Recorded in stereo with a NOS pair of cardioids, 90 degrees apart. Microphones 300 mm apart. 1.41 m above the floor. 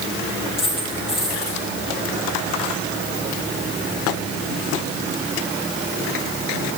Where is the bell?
No bell in this recording.